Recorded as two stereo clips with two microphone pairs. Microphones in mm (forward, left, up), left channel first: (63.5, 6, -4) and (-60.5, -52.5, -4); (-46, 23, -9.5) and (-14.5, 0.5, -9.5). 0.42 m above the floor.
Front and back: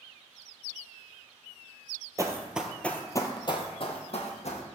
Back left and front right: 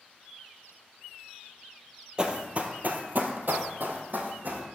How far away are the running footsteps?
About 0.7 m.